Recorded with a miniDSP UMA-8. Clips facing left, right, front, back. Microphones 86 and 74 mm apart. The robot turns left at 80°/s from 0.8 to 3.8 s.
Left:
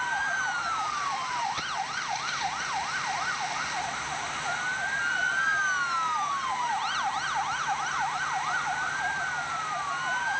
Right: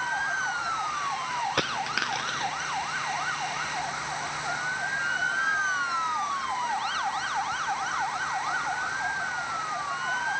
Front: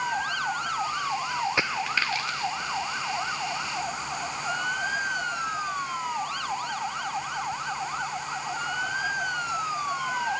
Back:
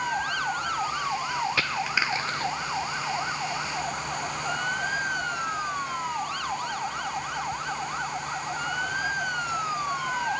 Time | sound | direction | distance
1.6 | a dropped coin | 70° right | ?